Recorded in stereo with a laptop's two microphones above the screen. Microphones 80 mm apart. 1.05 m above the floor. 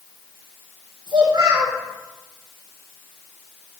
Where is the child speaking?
85° right, 2 m.